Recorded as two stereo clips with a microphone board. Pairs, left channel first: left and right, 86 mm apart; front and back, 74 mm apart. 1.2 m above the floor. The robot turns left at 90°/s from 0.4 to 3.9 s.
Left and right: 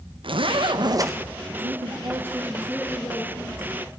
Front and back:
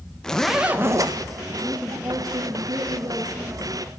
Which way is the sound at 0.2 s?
80° right.